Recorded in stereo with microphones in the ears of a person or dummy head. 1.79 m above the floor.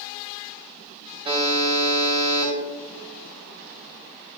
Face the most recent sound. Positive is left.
turn(degrees=-25)  # may be behind; listen again after turning